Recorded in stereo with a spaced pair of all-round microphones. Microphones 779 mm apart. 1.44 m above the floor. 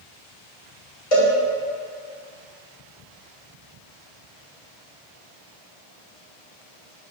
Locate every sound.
1.1 s a cowbell: 45° left (ahead or behind), 2.5 m